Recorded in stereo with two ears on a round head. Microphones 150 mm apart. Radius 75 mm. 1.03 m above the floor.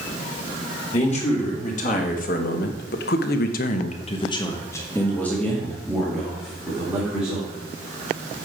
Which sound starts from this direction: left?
A man speaking, at 0.9 s.